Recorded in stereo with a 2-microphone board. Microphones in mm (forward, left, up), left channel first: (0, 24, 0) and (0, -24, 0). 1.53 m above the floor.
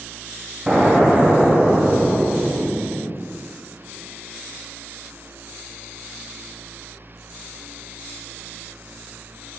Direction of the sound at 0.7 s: 20° right (ahead or behind).